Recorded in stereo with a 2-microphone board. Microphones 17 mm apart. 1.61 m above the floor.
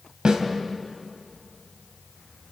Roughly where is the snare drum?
Right.